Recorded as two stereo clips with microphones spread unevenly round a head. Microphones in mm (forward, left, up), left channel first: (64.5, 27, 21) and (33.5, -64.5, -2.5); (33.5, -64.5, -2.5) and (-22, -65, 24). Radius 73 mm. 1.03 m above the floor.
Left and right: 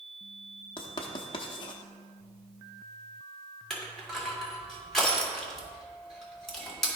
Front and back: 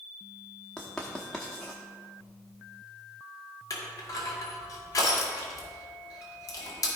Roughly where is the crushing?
Ahead.